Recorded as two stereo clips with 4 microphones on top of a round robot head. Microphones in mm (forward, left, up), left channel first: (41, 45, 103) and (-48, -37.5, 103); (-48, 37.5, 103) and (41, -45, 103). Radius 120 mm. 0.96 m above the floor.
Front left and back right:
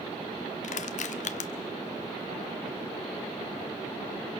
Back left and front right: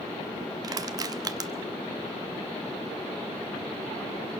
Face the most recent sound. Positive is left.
turn(degrees=20)